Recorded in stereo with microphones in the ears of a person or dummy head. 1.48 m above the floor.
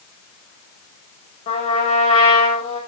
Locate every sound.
1.5 s a trumpet: 40° left (ahead or behind), 6.5 m